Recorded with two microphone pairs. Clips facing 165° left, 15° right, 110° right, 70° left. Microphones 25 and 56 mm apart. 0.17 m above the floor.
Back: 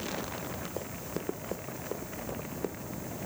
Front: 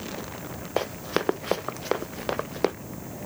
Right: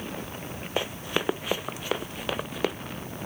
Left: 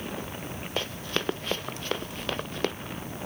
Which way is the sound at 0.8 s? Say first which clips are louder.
Front 10 dB, right 3 dB; 35° right.